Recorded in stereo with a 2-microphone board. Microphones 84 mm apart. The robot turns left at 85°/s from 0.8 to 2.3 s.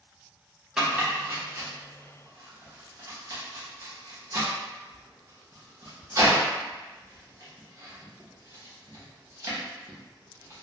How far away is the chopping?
About 0.9 m.